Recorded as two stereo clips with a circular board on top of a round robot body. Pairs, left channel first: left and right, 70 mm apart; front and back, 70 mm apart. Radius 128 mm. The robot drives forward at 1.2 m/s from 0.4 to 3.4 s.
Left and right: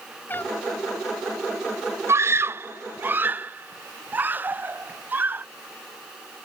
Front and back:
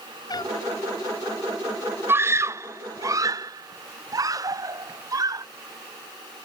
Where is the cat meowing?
25° left.